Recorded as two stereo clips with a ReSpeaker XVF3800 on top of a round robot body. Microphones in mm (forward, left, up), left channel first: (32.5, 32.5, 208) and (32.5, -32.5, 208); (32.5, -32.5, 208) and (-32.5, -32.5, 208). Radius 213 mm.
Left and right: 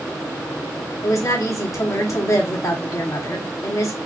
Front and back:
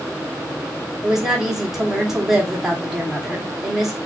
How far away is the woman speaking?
About 1.7 m.